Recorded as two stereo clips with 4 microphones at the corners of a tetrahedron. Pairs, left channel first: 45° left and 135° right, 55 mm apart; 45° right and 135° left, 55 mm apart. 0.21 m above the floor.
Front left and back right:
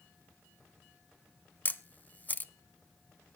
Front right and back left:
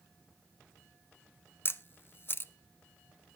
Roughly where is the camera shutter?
Ahead.